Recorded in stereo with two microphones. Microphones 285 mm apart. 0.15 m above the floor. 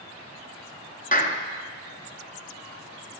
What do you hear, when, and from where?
1.1 s a clap: 30° left (ahead or behind), 1.3 m